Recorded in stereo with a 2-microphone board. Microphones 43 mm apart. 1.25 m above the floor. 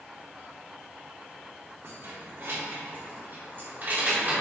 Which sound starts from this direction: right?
Keys jangling, at 1.8 s.